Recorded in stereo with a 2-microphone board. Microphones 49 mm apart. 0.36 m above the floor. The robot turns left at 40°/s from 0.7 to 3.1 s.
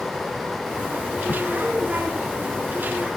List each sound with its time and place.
1.3 s a crack: 40° left (ahead or behind); by 1.4 s 45° left (ahead or behind)